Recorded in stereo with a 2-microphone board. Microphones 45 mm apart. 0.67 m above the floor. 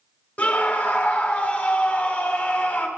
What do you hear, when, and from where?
0.4 s a scream: 35° left (ahead or behind), 2.0 m